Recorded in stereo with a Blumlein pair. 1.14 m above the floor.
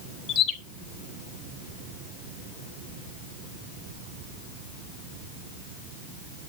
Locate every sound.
0.3 s a bird: 30° left, 1.3 m